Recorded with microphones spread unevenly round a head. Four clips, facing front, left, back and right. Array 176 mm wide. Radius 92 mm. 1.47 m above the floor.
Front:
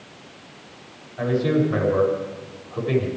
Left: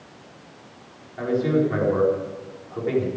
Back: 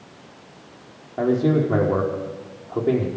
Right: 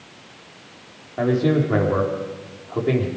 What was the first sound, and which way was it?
A man speaking, 140° right.